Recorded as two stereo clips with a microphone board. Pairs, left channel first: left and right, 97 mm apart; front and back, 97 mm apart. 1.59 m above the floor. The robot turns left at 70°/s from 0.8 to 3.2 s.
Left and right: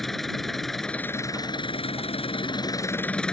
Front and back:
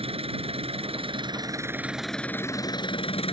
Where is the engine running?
175° left; by 3.3 s 10° left.